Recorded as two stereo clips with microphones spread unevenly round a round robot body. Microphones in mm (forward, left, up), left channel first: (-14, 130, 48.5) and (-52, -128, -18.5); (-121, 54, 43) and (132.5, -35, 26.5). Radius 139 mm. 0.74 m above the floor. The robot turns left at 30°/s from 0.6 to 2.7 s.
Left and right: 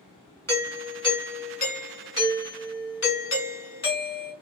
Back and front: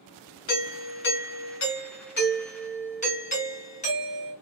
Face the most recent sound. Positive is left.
turn(degrees=115)